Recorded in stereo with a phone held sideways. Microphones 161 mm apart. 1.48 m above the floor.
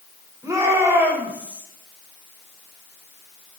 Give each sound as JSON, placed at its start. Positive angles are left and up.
{"t": 0.4, "sound": "a shout", "side_deg": -20, "distance_m": 6.0}